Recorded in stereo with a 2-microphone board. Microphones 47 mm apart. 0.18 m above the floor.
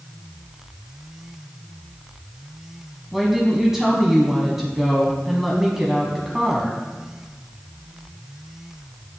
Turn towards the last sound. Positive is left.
turn(degrees=-10)  # may be behind; listen again after turning